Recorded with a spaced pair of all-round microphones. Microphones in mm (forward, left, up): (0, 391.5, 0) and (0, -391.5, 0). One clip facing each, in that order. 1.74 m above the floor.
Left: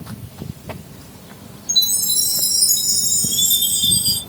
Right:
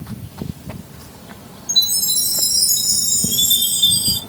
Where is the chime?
10° left (ahead or behind), 4 m.